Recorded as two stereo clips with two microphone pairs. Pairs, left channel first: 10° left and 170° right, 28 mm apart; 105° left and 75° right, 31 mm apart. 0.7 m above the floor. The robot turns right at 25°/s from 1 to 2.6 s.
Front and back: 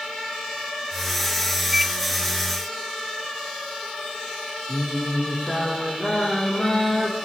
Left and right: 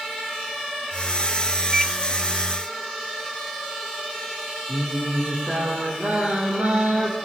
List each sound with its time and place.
1.7 s a microwave: 115° right, 0.7 m; by 1.9 s 110° right, 0.7 m
4.7 s singing: 45° right, 5 m